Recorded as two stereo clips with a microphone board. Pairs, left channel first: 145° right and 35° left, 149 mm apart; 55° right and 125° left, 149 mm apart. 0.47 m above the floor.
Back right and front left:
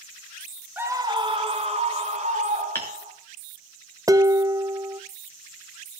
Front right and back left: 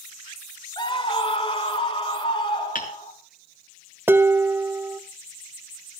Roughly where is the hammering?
Right.